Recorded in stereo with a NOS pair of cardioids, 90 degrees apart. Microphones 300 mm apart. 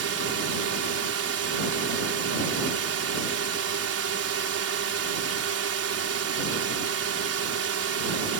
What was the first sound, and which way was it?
A drone, 55° right.